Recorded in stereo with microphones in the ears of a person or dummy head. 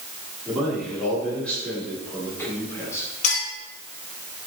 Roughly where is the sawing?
No sawing in this recording.